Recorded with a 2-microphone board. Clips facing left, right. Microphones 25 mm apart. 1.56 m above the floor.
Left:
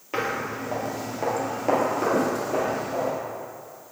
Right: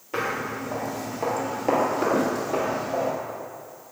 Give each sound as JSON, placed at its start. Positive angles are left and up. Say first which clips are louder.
{"t": 0.1, "sound": "footsteps", "louder": "even", "side_deg": 25, "distance_m": 2.0}